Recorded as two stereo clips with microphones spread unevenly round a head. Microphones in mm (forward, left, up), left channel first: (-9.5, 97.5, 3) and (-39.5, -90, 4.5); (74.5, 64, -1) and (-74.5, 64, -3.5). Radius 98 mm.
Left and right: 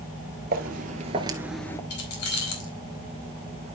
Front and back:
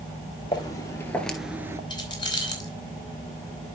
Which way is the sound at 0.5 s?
65° right.